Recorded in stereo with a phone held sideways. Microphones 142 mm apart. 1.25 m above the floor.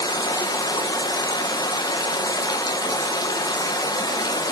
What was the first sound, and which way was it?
Running water, 30° left (ahead or behind).